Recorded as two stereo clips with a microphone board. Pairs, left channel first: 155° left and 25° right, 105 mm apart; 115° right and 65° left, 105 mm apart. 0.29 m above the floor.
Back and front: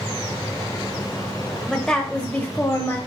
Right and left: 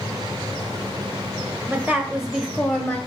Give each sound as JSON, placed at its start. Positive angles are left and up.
{"t": 1.7, "sound": "a woman speaking", "azimuth_deg": 75, "distance_m": 0.9}